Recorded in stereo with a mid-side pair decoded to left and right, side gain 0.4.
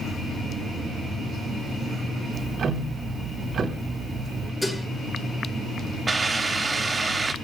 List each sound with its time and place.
2.3 s ticking: 60° right, 2.0 m
4.6 s dishes clattering: 20° left, 3 m
6.1 s a hiss: 30° right, 2.5 m